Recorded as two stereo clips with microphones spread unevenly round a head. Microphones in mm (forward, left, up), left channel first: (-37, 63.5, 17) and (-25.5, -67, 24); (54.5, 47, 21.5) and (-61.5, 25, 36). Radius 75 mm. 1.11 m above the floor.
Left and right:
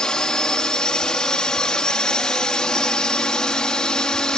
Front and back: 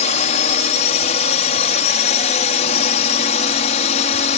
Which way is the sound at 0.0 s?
10° left.